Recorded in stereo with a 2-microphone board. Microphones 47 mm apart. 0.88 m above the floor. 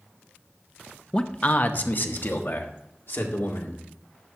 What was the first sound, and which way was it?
A man speaking, 20° left (ahead or behind).